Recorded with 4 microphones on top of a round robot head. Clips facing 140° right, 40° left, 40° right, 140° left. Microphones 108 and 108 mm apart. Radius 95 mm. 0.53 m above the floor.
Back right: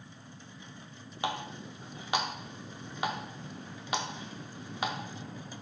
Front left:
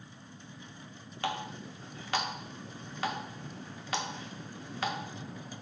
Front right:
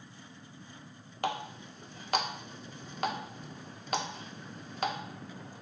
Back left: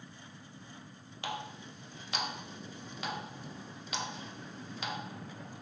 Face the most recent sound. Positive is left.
turn(degrees=-70)